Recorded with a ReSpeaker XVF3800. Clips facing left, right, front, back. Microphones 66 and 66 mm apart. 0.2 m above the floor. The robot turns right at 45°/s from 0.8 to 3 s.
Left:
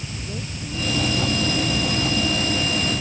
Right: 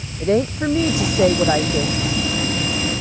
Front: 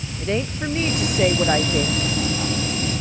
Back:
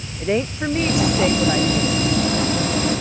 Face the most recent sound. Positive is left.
turn(degrees=-5)